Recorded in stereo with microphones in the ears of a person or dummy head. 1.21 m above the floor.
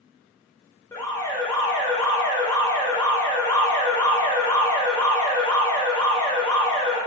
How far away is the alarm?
About 0.6 m.